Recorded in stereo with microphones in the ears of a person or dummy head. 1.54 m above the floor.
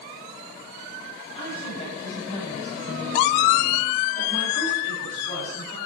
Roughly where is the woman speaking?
Left.